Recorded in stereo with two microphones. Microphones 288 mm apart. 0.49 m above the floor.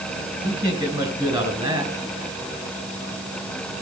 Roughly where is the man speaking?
Centre.